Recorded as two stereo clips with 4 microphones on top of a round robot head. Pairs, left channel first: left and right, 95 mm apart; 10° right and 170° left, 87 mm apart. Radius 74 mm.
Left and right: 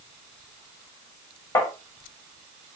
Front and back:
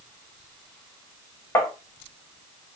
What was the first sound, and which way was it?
Tapping, 40° left.